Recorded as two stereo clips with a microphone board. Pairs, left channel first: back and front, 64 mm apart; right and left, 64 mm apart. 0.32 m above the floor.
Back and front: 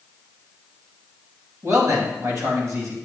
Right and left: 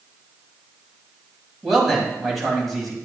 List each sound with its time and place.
1.6 s a man speaking: straight ahead, 2.5 m